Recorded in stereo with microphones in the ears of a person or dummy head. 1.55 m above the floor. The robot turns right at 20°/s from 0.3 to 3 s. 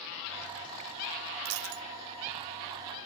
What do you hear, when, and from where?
1.4 s a dropped coin: 70° right (ahead or behind)